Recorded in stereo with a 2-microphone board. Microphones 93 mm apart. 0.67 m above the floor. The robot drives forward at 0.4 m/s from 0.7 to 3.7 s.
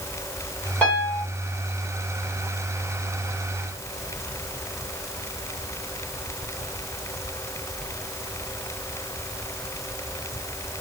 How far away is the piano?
About 3.5 m.